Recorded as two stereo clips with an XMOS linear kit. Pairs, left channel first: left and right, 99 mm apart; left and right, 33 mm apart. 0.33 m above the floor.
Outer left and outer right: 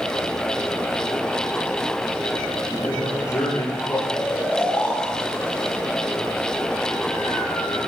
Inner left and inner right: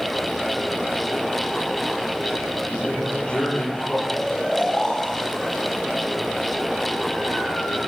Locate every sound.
2.7 s a man speaking: 35° left (ahead or behind), 9.5 m
4.1 s snoring: 10° left (ahead or behind), 3 m